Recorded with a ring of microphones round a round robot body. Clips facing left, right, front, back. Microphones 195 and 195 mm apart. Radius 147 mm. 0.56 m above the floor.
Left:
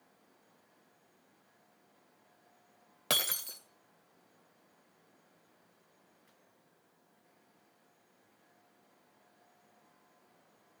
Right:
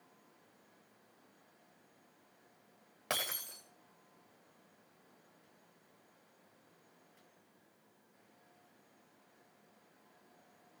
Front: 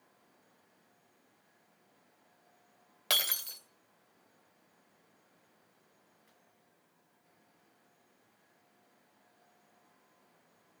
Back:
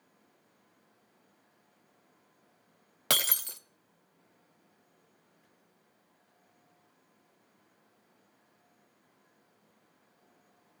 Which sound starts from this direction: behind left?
Breaking glass, at 3.1 s.